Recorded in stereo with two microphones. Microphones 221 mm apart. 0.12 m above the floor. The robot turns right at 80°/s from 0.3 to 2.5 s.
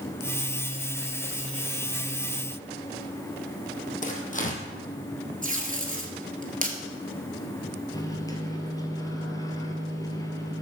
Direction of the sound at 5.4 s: 35° right (ahead or behind).